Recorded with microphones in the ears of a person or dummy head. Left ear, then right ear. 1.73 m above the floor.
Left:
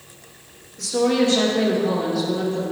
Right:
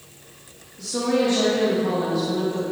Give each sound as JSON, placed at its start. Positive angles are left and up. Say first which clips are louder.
{"t": 0.8, "sound": "a woman speaking", "louder": "left 3 dB", "side_deg": 30, "distance_m": 2.5}